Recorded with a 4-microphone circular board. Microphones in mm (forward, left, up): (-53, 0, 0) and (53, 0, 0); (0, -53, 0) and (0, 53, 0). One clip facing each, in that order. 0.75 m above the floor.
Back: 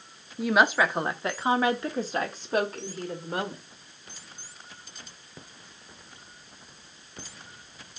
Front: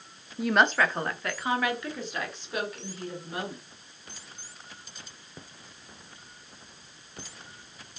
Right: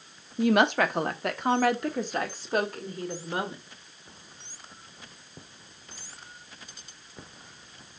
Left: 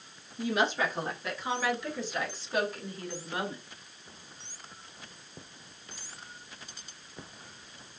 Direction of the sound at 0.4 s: 90° right.